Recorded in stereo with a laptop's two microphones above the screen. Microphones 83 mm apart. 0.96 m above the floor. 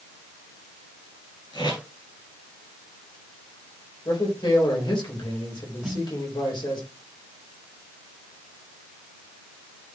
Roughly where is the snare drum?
Centre.